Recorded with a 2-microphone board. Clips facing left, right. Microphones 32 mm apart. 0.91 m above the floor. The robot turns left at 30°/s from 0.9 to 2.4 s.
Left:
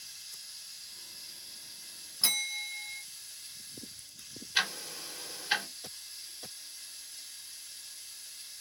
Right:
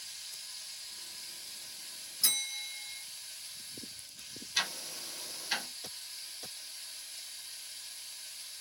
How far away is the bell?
About 1.3 m.